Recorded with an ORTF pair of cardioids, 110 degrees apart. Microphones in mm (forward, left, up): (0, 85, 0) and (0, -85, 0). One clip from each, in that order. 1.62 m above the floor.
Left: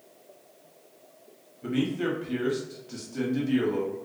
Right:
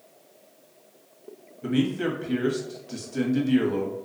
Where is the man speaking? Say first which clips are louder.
Right 2 dB; 15° right, 0.9 m.